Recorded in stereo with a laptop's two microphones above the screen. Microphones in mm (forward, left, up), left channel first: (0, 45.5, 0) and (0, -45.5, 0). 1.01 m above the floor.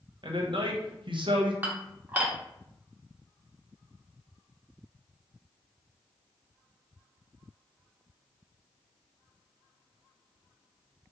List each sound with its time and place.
0.2 s a man speaking: 65° right (ahead or behind), 0.7 m
1.6 s dishes clattering: 20° right (ahead or behind), 0.9 m